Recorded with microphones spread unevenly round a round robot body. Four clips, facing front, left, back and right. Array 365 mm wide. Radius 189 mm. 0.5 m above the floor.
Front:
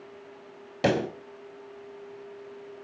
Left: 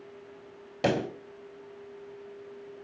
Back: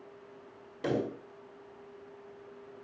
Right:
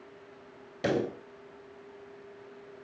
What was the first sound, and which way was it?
A pop, 20° left.